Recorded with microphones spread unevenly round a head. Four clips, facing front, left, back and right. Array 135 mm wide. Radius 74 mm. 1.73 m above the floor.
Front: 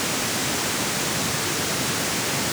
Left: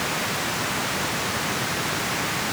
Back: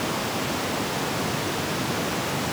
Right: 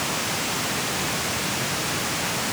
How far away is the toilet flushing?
No toilet flushing in this recording.